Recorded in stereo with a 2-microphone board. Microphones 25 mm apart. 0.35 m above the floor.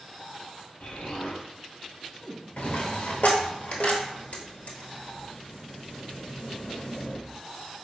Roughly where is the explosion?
Left.